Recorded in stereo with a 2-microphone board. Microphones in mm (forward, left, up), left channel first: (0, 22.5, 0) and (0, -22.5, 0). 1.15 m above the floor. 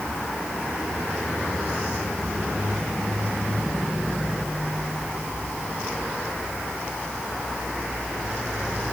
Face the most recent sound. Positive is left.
No sound to turn to.